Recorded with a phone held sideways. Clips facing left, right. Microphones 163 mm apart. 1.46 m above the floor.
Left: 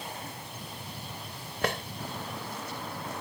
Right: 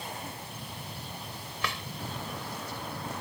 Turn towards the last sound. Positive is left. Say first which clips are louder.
# left 7 dB
turn(degrees=50)  # may be behind; listen again after turning